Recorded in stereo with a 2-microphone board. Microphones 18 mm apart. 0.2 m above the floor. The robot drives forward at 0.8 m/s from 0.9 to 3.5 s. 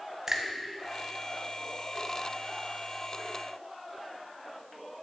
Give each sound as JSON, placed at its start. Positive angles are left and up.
{"t": 0.3, "sound": "a finger snap", "side_deg": -30, "distance_m": 0.8}